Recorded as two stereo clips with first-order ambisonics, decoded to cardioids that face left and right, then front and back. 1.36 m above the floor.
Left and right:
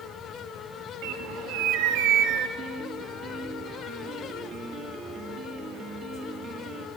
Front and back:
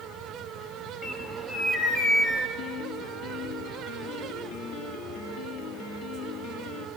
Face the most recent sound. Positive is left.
turn(degrees=-35)